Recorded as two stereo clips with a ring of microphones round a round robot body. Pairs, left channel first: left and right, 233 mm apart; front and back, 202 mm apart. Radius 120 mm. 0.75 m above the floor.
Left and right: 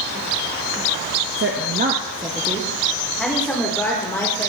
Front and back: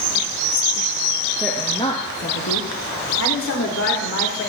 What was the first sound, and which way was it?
A woman speaking, 100° right.